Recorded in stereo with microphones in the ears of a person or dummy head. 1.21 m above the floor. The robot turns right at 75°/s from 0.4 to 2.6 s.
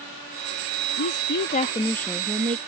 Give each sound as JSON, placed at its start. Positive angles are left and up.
{"t": 1.0, "sound": "a woman speaking", "azimuth_deg": 95}